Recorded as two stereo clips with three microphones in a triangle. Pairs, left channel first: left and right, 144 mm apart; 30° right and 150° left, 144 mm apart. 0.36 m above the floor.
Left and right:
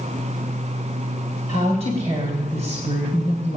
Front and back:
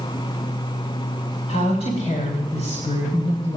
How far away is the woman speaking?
About 2.5 m.